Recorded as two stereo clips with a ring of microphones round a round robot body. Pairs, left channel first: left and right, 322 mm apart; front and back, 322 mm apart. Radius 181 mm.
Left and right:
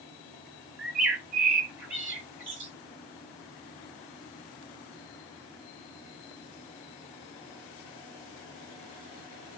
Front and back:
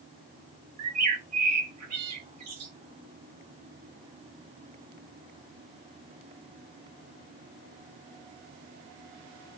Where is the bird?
175° right, 1.4 m.